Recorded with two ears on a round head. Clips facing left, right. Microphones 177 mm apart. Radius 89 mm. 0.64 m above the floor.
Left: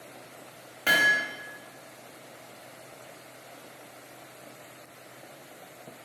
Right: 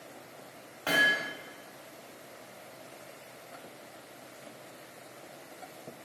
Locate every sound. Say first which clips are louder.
0.9 s hammering: left 1 dB; 20° left (ahead or behind), 0.7 m